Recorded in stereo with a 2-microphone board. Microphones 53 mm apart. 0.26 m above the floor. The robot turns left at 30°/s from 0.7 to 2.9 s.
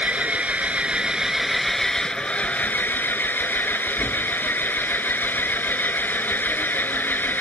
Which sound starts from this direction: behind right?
An engine running, at 0.0 s.